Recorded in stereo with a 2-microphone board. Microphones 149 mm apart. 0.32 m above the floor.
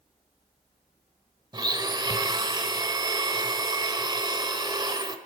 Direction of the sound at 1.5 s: 30° right (ahead or behind).